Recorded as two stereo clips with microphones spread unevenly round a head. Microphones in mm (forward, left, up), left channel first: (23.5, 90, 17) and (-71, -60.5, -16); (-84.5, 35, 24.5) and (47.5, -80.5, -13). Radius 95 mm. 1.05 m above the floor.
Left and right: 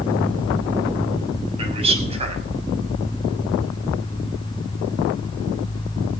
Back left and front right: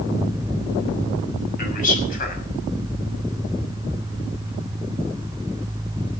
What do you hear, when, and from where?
1.6 s a man speaking: straight behind, 6 m